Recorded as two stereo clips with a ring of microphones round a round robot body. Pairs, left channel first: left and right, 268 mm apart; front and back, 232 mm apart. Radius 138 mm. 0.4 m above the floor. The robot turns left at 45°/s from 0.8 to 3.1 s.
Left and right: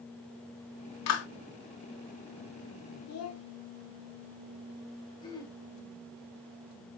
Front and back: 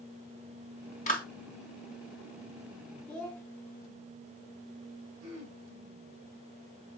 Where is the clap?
60° left, 3 m; by 1.3 s 50° left, 3 m.